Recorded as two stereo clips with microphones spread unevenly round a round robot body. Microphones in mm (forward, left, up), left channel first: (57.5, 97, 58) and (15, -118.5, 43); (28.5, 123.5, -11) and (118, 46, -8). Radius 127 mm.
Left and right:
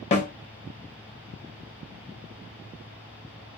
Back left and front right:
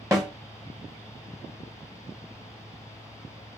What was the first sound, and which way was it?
A snare drum, 25° left.